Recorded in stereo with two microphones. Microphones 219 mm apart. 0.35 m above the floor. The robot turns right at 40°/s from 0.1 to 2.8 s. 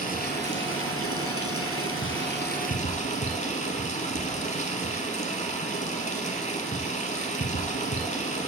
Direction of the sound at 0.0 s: 40° left.